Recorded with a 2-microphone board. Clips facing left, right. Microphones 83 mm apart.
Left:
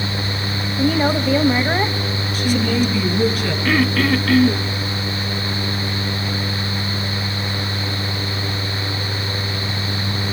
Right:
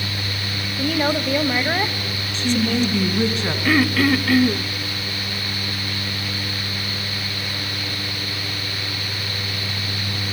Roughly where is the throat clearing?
Centre.